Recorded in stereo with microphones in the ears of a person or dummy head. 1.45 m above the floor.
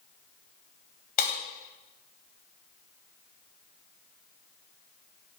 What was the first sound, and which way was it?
Breaking glass, 50° left (ahead or behind).